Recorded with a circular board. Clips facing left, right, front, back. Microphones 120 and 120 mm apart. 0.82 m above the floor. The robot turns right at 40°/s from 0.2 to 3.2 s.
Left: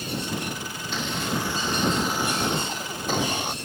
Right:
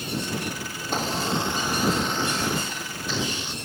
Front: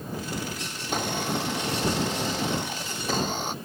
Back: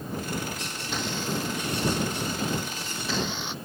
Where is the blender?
45° right; by 3.5 s 50° left.